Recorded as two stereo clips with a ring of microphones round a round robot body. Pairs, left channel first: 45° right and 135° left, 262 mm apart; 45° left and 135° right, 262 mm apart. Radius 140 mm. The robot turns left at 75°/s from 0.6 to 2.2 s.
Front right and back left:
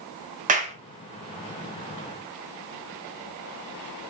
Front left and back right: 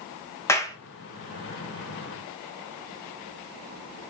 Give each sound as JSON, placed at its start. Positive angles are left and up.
{"t": 0.5, "sound": "a clap", "azimuth_deg": 115, "distance_m": 0.7}